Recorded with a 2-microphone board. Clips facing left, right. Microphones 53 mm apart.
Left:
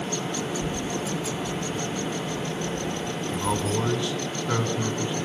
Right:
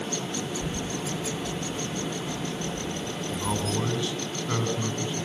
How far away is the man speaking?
About 3.5 m.